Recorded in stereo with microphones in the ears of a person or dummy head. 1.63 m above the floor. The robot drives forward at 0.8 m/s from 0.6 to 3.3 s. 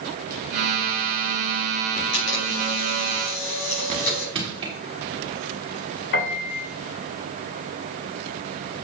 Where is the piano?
60° left (ahead or behind), 1.9 m.